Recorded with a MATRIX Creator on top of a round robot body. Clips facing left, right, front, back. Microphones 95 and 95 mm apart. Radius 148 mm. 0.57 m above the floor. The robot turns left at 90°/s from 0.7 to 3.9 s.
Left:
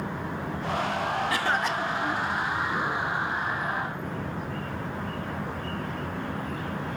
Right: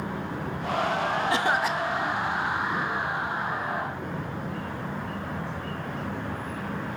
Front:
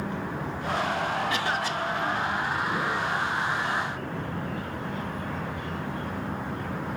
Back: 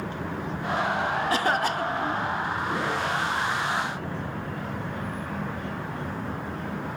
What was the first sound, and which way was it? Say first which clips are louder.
A cough: right 2 dB, back 4 dB; 140° right.